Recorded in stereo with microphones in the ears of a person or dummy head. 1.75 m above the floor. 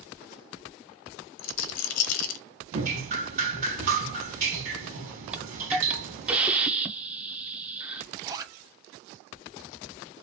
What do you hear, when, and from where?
1.4 s a rattle: 65° left (ahead or behind), 0.5 m
2.7 s dripping: 45° right (ahead or behind), 2 m
5.3 s a hiss: 5° right (ahead or behind), 0.7 m
8.1 s a zipper: 20° right (ahead or behind), 0.6 m